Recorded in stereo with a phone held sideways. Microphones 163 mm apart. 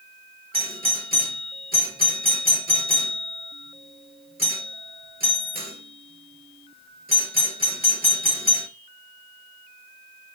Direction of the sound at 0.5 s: 65° right (ahead or behind).